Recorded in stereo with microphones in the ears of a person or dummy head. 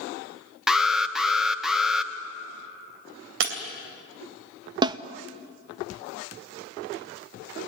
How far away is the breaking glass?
About 3.5 m.